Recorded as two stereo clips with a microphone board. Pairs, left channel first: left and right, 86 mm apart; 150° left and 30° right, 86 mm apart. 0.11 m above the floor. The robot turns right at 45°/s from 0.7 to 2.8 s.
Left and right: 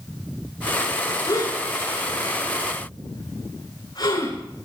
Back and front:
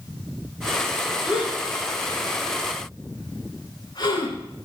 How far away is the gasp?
About 9.5 m.